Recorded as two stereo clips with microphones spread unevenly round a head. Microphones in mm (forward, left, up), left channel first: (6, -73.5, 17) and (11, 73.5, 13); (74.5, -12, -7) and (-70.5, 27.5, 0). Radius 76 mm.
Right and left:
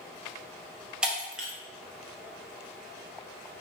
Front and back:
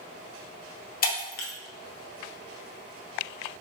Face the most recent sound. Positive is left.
turn(degrees=5)